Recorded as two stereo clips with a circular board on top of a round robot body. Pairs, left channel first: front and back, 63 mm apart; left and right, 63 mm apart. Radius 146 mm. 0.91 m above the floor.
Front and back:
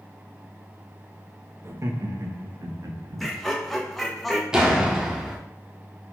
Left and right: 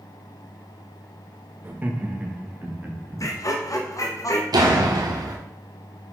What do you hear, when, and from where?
1.6 s laughter: 145° right, 1.6 m; by 3.2 s 155° right, 2.5 m
3.2 s laughter: 85° left, 1.4 m
4.5 s a door slam: 100° right, 1.5 m